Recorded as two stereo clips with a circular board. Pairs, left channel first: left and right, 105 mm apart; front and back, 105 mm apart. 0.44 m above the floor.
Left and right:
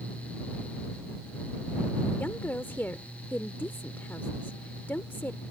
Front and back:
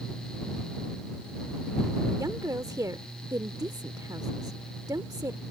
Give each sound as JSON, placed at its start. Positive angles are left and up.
{"t": 2.2, "sound": "a woman speaking", "azimuth_deg": 150}